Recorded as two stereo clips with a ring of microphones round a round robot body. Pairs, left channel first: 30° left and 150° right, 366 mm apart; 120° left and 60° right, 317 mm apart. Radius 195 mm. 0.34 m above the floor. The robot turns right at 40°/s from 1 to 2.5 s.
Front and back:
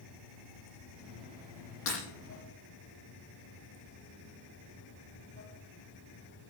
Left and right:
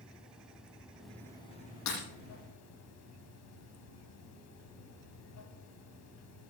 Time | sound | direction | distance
0.0 | running water | 25° left | 3 m
1.9 | breaking glass | 85° left | 9.5 m